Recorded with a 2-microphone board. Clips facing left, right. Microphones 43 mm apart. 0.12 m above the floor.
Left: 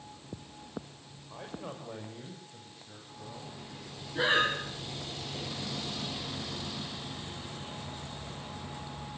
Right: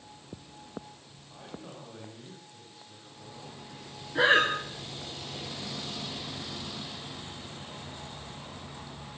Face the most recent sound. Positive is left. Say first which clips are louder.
# right 4 dB
turn(degrees=-60)  # may be behind; listen again after turning